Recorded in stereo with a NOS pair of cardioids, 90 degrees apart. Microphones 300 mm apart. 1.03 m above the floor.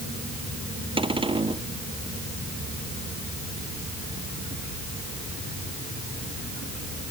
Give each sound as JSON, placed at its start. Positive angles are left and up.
{"t": 1.0, "sound": "a cupboard door", "azimuth_deg": -15}